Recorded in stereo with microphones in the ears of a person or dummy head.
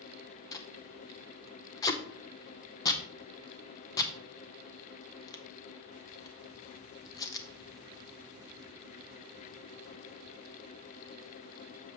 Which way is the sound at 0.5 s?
20° left (ahead or behind).